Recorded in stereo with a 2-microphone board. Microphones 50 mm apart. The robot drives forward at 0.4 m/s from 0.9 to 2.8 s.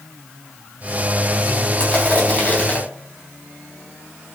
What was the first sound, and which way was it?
Crushing, 25° left (ahead or behind).